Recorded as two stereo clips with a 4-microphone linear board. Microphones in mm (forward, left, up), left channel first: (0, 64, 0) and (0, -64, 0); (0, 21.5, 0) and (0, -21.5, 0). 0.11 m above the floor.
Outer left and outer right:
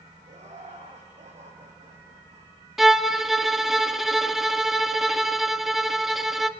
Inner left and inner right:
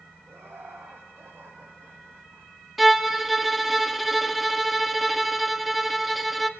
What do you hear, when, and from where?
0.3 s laughter: 60° right (ahead or behind), 5.5 m
2.8 s a violin: centre (ahead or behind), 0.9 m